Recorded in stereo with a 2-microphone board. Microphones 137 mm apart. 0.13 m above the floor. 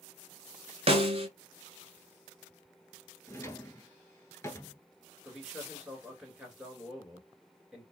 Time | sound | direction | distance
0.9 | a snare drum | 50° right (ahead or behind) | 0.7 m
3.3 | a drawer | 20° left (ahead or behind) | 0.7 m
5.2 | a man speaking | 5° right (ahead or behind) | 2 m